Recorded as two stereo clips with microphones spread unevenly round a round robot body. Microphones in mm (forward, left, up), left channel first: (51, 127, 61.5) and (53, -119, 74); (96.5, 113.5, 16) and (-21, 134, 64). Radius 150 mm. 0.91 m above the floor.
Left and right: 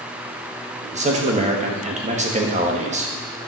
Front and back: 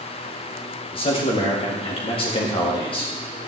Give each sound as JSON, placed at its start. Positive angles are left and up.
{"t": 0.9, "sound": "a man speaking", "azimuth_deg": -30, "distance_m": 1.7}